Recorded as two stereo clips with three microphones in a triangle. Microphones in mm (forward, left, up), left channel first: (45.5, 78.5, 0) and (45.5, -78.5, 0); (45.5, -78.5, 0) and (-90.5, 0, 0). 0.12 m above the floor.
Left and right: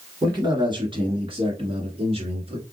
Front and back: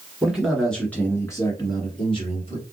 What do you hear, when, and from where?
0.2 s a man speaking: 135° right, 1.7 m; by 2.6 s 55° right, 2 m